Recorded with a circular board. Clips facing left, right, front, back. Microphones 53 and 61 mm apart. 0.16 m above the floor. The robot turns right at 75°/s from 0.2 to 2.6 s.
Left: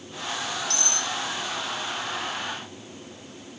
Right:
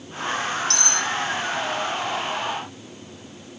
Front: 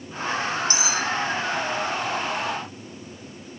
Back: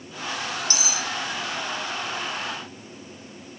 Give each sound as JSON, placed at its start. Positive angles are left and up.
{"t": 0.7, "sound": "cutlery clinking", "azimuth_deg": -60, "distance_m": 4.0}